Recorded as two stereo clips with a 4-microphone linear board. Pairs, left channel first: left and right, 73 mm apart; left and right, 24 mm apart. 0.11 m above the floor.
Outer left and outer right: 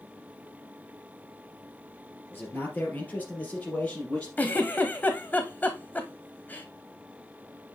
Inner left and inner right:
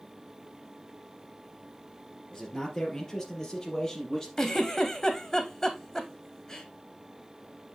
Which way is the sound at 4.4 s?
25° left (ahead or behind).